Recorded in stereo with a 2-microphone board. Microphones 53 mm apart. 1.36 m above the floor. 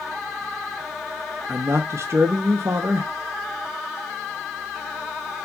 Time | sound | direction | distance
1.5 | a man speaking | 55° right (ahead or behind) | 0.8 m